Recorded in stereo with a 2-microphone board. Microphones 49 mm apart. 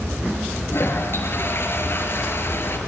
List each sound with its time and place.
0.7 s a toilet flushing: 45° left (ahead or behind), 4 m